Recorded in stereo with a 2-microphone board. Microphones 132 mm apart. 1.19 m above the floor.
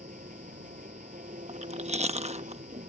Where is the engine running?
80° right.